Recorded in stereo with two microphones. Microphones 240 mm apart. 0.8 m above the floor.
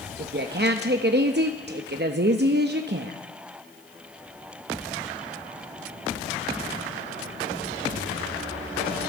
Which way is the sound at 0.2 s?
45° right (ahead or behind).